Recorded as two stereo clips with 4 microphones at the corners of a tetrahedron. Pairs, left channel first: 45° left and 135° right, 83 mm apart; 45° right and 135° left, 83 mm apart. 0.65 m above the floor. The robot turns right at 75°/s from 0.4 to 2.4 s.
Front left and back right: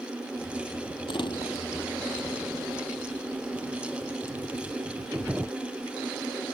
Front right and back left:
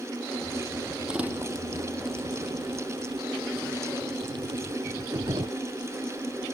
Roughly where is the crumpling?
Ahead left.